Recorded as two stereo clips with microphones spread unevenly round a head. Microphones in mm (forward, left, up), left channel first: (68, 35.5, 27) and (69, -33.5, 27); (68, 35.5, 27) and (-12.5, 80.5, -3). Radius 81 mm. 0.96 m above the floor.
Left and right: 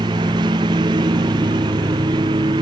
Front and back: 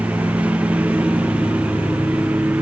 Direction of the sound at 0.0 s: 125° right.